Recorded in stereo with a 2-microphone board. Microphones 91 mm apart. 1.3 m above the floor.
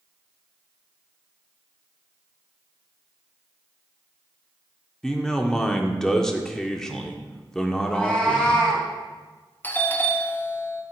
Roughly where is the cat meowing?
Centre.